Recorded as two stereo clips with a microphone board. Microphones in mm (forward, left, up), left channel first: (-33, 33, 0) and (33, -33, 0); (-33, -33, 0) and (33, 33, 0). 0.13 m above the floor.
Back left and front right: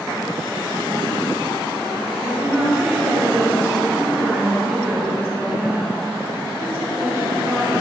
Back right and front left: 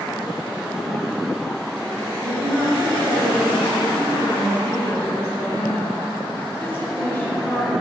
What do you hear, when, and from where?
2.2 s a woman speaking: 95° right, 1.7 m